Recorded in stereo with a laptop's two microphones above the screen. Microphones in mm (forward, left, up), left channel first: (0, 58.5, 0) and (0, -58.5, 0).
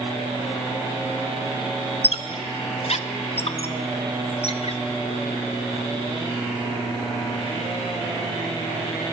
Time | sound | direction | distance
2.0 | a squeak | 60° left (ahead or behind) | 0.5 m